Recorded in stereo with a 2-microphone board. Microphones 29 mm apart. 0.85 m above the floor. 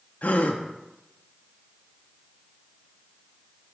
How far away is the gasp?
About 0.6 m.